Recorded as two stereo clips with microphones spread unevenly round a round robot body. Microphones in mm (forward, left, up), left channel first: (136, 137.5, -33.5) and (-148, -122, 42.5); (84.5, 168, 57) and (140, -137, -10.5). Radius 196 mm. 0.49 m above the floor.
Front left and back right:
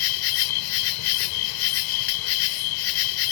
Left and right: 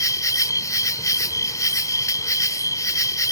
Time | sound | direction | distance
0.0 | an insect | 15° left | ?